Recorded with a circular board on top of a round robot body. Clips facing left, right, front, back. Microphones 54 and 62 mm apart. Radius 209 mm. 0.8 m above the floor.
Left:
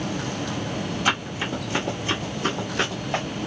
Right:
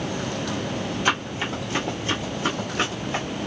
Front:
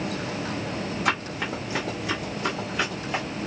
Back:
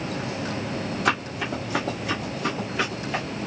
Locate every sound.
1.1 s running footsteps: 170° right, 1.3 m; by 3.2 s 90° left, 1.0 m